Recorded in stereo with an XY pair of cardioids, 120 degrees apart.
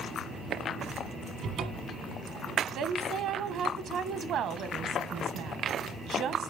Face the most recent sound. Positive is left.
turn(degrees=-65)